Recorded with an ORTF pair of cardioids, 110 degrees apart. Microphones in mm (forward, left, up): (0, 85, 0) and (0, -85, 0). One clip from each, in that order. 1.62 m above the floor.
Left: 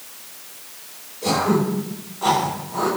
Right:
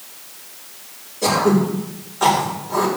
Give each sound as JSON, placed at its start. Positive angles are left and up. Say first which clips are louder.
{"t": 1.2, "sound": "throat clearing", "louder": "right 3 dB", "azimuth_deg": -70, "distance_m": 6.5}